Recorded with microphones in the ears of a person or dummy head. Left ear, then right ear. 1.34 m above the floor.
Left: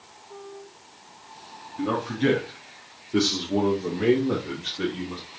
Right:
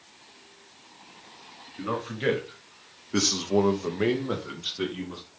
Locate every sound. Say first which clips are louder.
1.8 s a man speaking: left 4 dB; 15° right (ahead or behind), 2 m; by 5.2 s 35° right (ahead or behind), 1.9 m